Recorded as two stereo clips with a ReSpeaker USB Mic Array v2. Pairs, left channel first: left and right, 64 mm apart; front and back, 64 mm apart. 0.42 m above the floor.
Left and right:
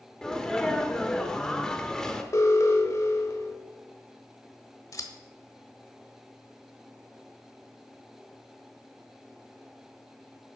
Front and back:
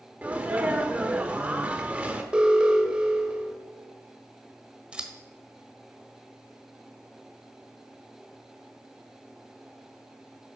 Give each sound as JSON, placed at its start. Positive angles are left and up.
{"t": 0.2, "sound": "a sneeze", "azimuth_deg": 155, "distance_m": 0.8}
{"t": 2.3, "sound": "an alarm", "azimuth_deg": 110, "distance_m": 1.4}
{"t": 4.9, "sound": "scissors", "azimuth_deg": 110, "distance_m": 1.3}